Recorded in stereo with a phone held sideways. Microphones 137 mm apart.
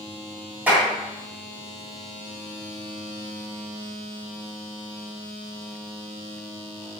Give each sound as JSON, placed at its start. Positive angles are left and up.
{"t": 0.7, "sound": "a clap", "side_deg": -10, "distance_m": 3.0}